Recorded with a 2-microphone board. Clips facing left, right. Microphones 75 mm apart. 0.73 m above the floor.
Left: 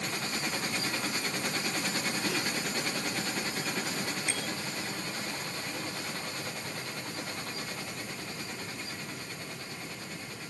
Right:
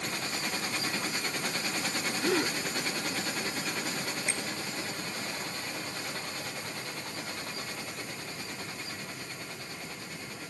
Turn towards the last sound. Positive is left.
turn(degrees=-20)  # may be behind; listen again after turning